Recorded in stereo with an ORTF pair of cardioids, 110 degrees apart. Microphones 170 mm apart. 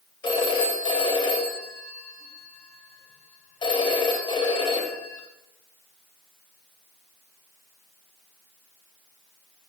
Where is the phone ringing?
30° left, 3.5 m.